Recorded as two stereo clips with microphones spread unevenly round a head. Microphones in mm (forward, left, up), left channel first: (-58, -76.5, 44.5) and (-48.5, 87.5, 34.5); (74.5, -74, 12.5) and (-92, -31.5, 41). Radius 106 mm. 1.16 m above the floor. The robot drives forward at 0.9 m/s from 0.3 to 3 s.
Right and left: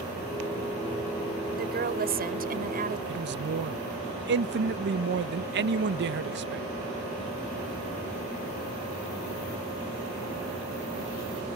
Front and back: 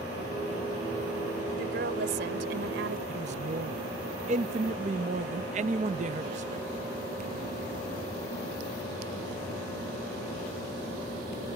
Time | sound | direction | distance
1.6 | a woman speaking | 115° left | ?
3.1 | a man speaking | 105° left | ?